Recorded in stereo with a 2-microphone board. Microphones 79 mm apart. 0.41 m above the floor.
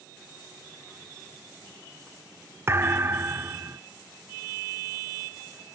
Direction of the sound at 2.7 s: 30° right (ahead or behind).